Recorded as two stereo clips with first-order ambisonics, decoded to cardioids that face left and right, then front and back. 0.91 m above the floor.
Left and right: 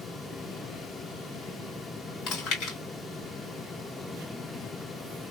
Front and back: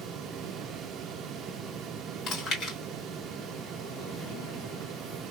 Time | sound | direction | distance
2.3 | chewing | 55° left | 2.5 m